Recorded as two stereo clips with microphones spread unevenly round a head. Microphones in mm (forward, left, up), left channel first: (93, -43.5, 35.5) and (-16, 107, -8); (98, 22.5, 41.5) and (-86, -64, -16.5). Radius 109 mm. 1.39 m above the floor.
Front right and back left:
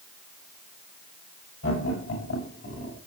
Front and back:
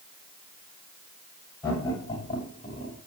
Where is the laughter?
50° right, 7.5 m; by 3.0 s 35° right, 7 m.